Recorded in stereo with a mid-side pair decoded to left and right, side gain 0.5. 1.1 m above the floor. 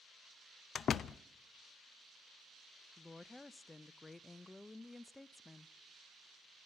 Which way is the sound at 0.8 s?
45° left.